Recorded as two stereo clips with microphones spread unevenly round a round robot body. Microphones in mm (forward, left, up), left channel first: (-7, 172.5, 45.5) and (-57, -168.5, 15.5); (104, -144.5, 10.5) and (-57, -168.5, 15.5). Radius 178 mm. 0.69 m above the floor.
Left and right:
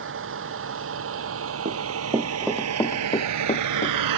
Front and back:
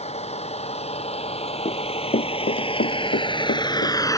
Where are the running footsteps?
30° right; by 4.0 s 20° left.